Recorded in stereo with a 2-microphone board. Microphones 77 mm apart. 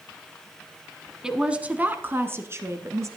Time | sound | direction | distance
1.2 | a woman speaking | 10° right (ahead or behind) | 1.0 m